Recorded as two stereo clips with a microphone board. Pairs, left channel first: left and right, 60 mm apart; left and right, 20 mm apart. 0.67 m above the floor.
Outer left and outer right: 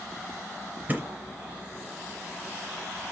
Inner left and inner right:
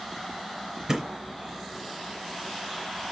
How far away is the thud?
About 0.6 m.